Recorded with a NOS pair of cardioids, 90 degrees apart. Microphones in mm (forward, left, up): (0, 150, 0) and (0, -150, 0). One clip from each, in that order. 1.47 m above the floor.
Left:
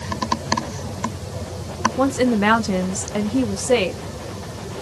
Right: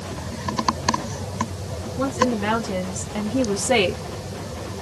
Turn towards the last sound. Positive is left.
turn(degrees=-20)